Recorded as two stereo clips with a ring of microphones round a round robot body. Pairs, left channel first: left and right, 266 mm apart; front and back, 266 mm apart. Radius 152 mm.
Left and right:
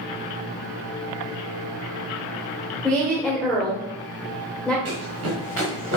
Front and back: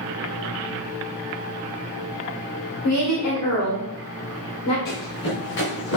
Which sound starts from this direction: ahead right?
Running footsteps, at 4.8 s.